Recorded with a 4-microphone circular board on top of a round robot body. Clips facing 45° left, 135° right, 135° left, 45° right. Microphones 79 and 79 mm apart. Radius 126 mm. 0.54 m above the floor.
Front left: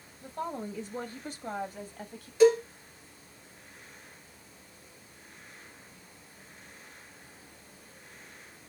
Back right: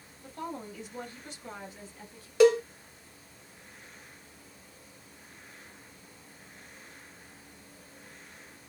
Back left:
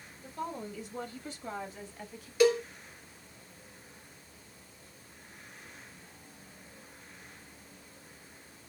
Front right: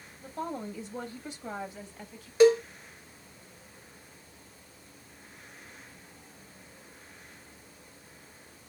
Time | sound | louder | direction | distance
0.2 | a woman speaking | front left 3 dB, front right 3 dB | 25° right | 1.2 m
2.4 | a cowbell | even, front right 5 dB | 110° right | 0.6 m